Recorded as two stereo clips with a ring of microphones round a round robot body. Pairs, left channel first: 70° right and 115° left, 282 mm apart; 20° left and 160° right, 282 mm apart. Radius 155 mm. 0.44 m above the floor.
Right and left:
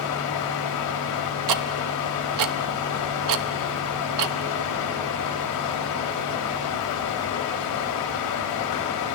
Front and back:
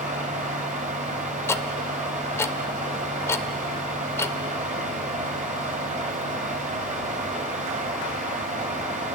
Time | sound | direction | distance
0.0 | running water | 95° right | 1.4 m
1.5 | ticking | 105° left | 0.5 m